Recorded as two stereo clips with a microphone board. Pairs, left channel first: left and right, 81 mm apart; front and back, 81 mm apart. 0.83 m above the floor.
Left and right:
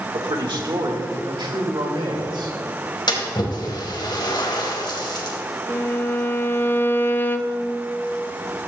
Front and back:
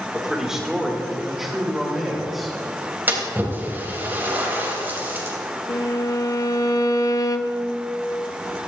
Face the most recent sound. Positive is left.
turn(degrees=30)